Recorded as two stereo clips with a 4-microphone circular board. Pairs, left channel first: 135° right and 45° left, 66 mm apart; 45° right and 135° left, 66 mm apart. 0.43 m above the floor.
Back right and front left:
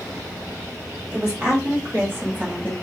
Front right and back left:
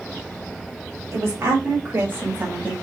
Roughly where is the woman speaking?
Left.